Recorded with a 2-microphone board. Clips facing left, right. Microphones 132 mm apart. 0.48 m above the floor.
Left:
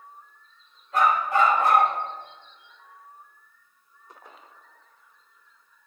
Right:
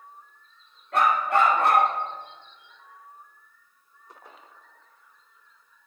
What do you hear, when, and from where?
0.9 s a dog barking: 80° right, 4.5 m